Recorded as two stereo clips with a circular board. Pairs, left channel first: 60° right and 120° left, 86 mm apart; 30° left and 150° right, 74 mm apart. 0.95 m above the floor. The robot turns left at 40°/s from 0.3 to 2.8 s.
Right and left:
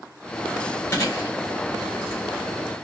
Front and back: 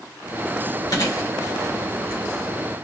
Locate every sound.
0.9 s chewing: straight ahead, 3 m; by 2.2 s 50° right, 3 m